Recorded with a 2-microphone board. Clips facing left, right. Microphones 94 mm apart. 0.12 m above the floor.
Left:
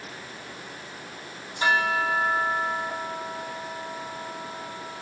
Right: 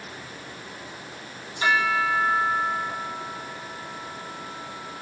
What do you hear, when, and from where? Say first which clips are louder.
1.6 s a bell: right 1 dB; 35° left (ahead or behind), 2.5 m